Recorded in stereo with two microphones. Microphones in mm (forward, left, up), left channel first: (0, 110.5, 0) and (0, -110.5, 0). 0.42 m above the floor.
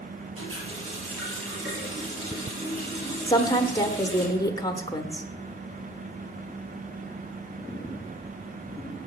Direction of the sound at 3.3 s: 15° left (ahead or behind).